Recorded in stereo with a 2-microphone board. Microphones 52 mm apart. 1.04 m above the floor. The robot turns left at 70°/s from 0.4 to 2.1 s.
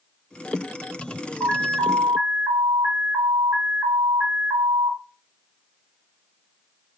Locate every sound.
1.4 s an alarm: 50° right, 0.8 m; by 5.0 s 95° right, 0.8 m